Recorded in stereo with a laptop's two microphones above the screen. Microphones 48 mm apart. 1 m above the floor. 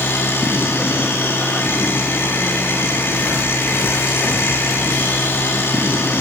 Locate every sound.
0.0 s a machine running: 55° left (ahead or behind), 3.5 m